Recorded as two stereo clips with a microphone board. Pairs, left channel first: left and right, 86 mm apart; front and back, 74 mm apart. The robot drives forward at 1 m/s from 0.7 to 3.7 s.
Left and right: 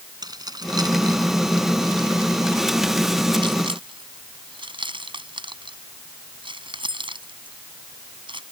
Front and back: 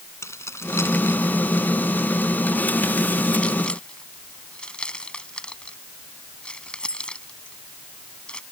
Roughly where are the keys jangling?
Ahead right.